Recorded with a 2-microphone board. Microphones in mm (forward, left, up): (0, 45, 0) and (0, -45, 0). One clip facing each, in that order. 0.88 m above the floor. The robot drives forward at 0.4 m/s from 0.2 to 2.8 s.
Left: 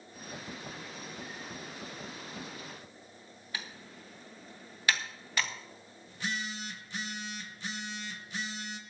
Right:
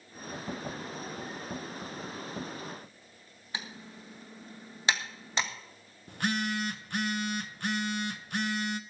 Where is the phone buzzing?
65° right (ahead or behind), 0.8 m.